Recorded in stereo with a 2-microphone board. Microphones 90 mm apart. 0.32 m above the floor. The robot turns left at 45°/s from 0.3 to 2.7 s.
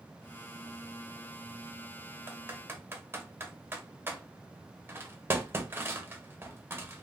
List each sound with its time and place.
2.3 s typing on a keyboard: 25° right (ahead or behind), 0.7 m